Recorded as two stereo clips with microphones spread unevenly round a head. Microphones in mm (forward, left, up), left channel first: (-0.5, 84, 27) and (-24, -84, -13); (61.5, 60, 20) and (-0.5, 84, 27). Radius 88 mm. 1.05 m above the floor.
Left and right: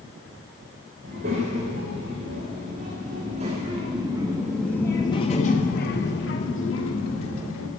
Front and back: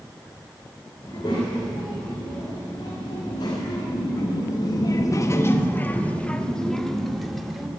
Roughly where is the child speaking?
Ahead right.